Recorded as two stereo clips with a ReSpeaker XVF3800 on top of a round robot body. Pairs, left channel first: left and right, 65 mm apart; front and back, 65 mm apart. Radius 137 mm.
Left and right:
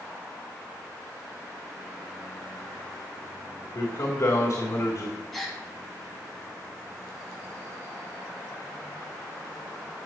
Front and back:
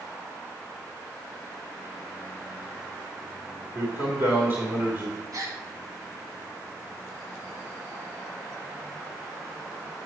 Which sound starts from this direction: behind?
A gasp, at 5.3 s.